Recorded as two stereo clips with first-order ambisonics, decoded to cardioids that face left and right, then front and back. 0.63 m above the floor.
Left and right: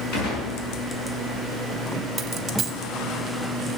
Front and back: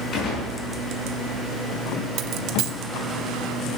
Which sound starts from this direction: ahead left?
A gunshot, at 0.1 s.